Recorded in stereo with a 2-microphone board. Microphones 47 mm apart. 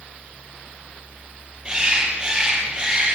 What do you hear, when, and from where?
1.6 s a bird: 15° right (ahead or behind), 6.5 m